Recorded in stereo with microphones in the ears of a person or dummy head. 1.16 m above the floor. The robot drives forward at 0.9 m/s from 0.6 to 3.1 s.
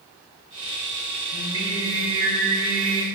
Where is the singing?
20° right (ahead or behind), 4 m; by 3.0 s 35° right (ahead or behind), 2.5 m.